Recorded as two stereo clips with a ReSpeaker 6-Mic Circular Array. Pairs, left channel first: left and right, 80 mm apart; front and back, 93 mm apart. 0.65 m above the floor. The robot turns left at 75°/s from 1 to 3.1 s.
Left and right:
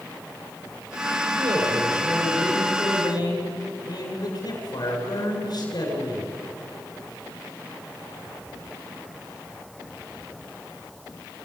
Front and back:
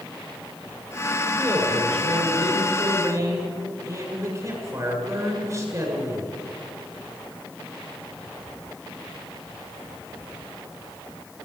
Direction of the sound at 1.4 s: 110° right.